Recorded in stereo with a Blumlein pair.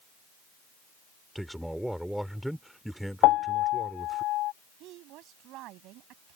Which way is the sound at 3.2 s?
35° left.